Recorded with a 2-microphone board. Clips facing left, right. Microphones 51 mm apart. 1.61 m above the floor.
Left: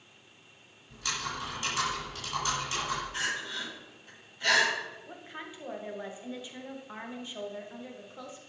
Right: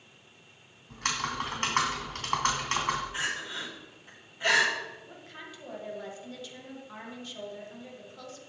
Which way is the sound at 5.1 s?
20° left (ahead or behind).